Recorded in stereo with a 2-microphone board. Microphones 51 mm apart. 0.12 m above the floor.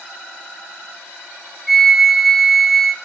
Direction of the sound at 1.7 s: Centre (ahead or behind).